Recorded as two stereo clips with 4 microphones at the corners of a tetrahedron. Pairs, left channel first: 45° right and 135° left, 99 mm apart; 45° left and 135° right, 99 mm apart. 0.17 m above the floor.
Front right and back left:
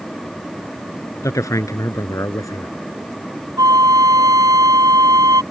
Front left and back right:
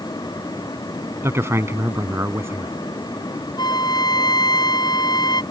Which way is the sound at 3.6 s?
85° left.